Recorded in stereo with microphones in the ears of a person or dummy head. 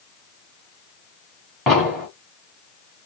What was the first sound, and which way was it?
An explosion, centre (ahead or behind).